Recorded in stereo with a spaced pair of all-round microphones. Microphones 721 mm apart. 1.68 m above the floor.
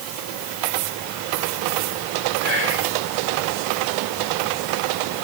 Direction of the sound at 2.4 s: 40° left (ahead or behind).